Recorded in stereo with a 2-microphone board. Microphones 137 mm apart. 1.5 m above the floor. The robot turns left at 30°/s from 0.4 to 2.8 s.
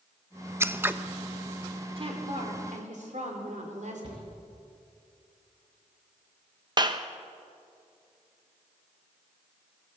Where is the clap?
35° right (ahead or behind), 1.0 m.